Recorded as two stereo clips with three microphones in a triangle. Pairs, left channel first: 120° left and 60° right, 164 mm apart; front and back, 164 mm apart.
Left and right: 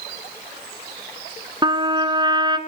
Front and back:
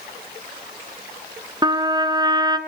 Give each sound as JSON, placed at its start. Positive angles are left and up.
{"t": 1.6, "sound": "a trumpet", "azimuth_deg": -120, "distance_m": 1.5}